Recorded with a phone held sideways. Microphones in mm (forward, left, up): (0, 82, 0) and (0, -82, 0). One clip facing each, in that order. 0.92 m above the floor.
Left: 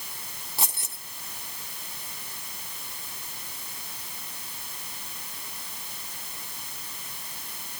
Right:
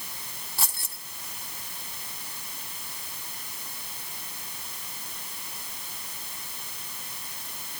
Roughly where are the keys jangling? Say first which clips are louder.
Left 2 dB; centre.